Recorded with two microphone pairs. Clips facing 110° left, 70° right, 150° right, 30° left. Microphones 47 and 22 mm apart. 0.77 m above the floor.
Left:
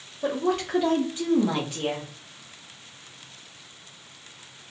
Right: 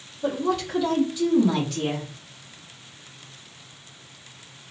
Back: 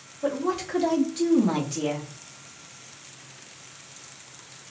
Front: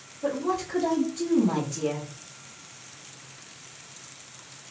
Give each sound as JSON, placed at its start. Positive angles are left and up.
{"t": 0.2, "sound": "a woman speaking", "azimuth_deg": 150, "distance_m": 1.3}